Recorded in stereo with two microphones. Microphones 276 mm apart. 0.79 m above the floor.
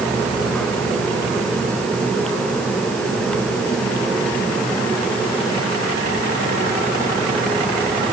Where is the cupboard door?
I don't hear a cupboard door.